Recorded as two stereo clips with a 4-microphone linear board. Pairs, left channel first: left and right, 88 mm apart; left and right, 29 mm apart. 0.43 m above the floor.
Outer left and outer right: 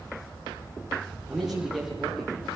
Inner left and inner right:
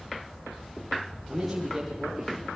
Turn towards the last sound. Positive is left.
turn(degrees=0)  # may be behind; listen again after turning